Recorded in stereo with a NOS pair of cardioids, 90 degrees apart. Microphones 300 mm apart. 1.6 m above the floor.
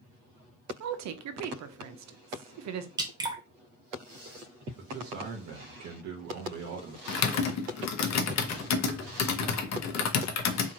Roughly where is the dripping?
Ahead.